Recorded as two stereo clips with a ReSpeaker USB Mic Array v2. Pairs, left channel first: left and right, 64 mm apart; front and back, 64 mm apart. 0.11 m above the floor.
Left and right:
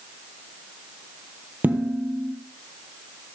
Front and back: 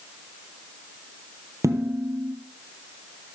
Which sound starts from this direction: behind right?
Dishes clattering, at 1.6 s.